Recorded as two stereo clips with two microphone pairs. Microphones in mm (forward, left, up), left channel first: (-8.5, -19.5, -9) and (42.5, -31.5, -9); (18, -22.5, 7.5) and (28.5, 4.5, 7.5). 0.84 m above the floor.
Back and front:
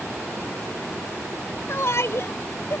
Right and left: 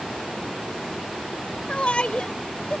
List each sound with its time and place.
1.7 s a shout: 155° right; by 2.8 s 170° right